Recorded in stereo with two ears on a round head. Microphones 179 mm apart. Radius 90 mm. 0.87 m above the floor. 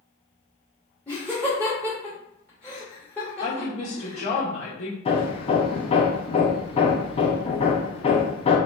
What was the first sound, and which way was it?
Laughter, 5° left (ahead or behind).